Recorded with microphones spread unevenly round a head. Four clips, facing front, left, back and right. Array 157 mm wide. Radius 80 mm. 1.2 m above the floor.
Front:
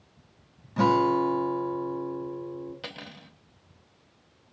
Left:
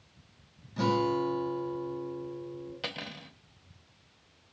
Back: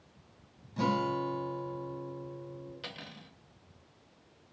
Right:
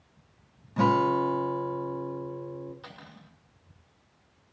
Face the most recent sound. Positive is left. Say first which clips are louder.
# left 7 dB, front 4 dB
turn(degrees=65)